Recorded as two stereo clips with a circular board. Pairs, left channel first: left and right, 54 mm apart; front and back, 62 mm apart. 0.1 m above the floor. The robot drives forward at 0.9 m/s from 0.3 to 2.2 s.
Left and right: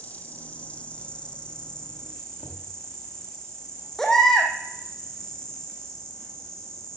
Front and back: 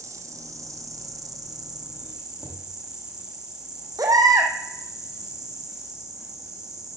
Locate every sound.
0.0 s an insect: 150° left, 1.7 m; by 7.0 s 165° left, 3 m
2.4 s knocking: 100° left, 5 m
4.0 s a baby crying: 175° left, 2.5 m